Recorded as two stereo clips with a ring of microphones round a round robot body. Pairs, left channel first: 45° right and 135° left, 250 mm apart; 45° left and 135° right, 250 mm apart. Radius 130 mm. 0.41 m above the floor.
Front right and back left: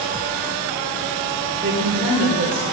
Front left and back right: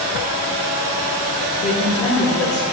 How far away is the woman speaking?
About 1.4 m.